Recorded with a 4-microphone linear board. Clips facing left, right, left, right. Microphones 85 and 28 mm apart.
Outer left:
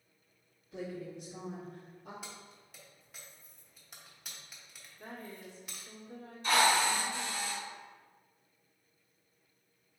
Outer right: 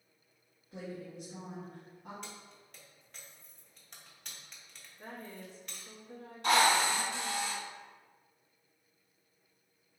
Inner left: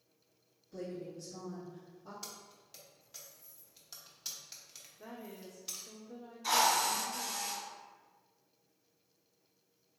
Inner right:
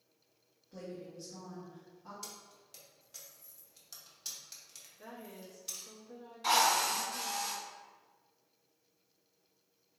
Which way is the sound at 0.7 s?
50° right (ahead or behind).